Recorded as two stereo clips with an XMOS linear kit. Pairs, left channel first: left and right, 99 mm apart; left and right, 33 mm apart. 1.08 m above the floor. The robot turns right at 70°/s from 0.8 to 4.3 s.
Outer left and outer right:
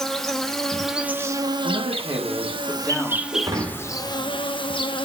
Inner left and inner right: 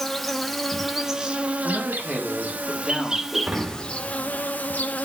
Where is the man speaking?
80° right, 1.9 m; by 3.2 s 30° left, 1.9 m.